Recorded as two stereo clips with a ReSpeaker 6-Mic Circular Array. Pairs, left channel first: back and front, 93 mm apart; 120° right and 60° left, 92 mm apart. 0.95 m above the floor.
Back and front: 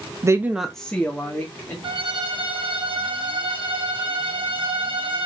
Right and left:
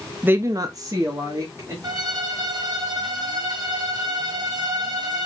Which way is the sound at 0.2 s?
Straight ahead.